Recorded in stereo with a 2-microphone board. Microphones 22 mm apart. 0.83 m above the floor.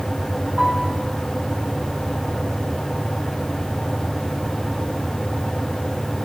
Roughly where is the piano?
Right.